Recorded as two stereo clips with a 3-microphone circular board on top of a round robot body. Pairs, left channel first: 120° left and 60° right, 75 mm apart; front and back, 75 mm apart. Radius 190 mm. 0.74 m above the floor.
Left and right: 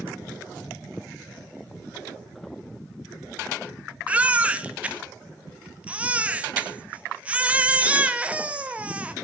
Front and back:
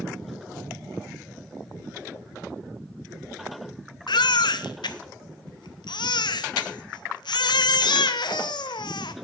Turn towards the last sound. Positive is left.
turn(degrees=15)